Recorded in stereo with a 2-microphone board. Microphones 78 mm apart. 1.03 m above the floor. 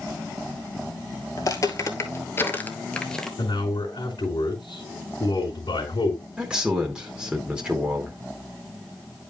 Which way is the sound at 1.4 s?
45° left (ahead or behind).